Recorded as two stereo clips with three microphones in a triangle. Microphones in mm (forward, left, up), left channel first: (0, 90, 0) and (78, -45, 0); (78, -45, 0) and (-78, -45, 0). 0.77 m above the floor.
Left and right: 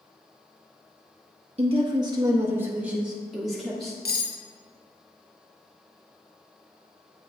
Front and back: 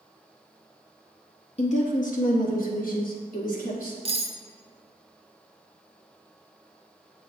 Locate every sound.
1.6 s a woman speaking: 30° right, 0.6 m; by 4.0 s 30° left, 1.6 m
4.0 s cutlery clinking: 130° left, 0.6 m